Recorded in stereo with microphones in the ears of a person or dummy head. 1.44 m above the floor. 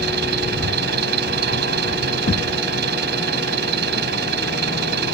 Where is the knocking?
30° left (ahead or behind).